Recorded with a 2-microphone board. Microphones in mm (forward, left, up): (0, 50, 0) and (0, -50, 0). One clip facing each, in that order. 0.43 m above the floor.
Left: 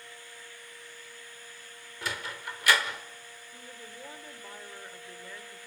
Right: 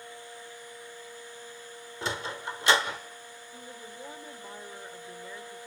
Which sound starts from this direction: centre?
A woman speaking, at 3.5 s.